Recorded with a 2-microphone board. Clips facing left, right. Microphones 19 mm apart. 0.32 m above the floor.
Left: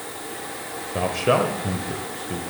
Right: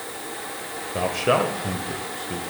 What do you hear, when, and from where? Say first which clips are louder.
0.9 s a man speaking: left 1 dB; centre (ahead or behind), 0.9 m